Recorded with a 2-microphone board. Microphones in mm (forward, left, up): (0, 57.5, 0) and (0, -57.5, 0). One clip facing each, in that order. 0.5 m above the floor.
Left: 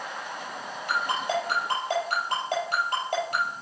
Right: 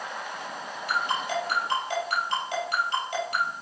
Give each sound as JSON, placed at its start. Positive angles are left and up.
{"t": 0.9, "sound": "a ringtone", "side_deg": 50, "distance_m": 4.5}